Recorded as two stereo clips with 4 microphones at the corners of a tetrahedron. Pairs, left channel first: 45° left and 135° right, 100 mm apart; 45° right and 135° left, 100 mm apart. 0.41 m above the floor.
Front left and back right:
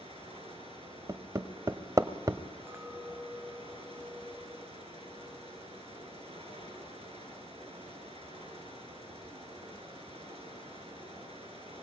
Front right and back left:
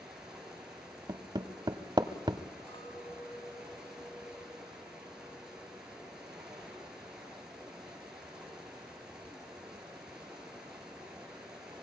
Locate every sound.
0.0 s running water: 140° right, 6 m
1.1 s hammering: 175° left, 1.1 m
2.7 s a clink: 70° right, 1.3 m